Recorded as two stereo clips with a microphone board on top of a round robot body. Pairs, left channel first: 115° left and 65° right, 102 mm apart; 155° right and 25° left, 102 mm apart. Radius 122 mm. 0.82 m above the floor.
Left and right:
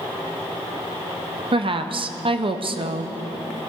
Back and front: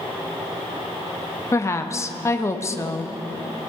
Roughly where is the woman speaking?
Right.